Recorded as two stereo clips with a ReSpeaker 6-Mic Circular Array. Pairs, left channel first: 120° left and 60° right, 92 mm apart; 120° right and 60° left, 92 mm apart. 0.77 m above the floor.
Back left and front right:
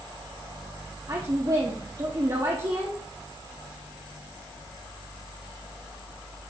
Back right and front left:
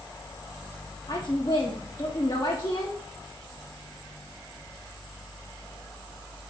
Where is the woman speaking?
90° right, 1.4 m.